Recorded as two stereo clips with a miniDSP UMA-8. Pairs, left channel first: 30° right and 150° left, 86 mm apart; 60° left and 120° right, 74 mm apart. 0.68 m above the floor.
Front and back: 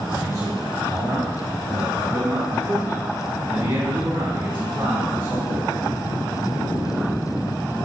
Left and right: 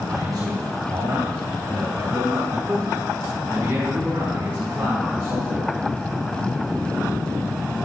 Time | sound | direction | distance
0.1 | a man speaking | 155° right | 3 m